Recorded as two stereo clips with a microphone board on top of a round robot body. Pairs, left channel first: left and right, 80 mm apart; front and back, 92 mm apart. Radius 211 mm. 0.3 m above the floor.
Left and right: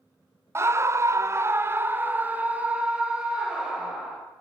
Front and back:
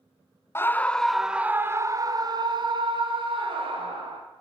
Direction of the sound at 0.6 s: 50° right.